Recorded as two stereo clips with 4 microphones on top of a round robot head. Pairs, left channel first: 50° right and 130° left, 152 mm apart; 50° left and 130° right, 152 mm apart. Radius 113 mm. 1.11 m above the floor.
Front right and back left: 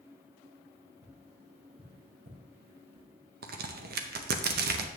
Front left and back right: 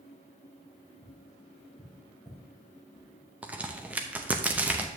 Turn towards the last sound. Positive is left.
turn(degrees=150)